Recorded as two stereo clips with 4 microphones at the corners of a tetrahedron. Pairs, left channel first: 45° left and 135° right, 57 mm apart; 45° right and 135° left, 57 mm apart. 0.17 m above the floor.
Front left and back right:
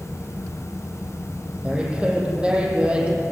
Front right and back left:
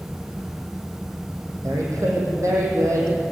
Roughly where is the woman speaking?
Behind left.